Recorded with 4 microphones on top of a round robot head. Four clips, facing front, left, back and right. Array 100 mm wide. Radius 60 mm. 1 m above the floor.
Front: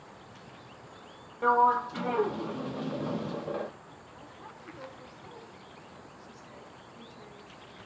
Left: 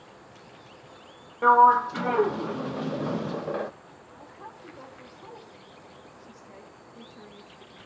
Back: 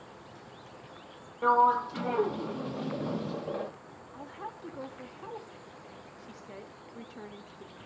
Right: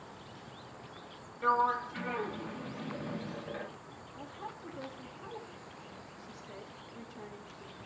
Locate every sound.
1.4 s a sliding door: 100° left, 0.5 m
4.1 s a woman speaking: 175° left, 3.5 m